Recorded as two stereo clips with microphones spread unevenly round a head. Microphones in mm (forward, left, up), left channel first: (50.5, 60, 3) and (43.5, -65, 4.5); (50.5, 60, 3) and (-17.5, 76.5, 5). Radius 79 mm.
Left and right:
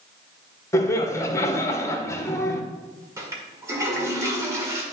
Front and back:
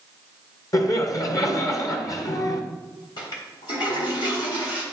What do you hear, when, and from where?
0.7 s laughter: 20° left, 1.2 m
3.2 s a toilet flushing: 30° right, 1.9 m